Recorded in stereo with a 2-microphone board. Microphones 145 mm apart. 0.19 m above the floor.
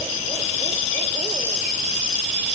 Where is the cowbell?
I don't hear a cowbell.